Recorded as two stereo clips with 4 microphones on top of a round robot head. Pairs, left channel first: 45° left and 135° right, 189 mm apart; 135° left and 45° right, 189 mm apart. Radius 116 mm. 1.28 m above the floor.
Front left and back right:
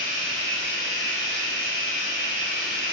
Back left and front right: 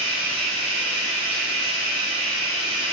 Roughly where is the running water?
Right.